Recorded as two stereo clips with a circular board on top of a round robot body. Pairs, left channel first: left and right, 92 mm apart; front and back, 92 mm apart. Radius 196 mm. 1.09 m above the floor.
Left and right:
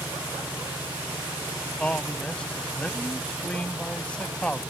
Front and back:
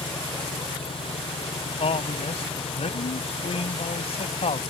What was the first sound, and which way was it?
An engine running, 15° right.